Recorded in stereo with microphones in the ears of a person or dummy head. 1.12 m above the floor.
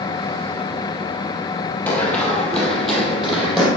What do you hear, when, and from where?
1.9 s running footsteps: 15° left (ahead or behind), 2 m; by 3.7 s centre (ahead or behind), 3 m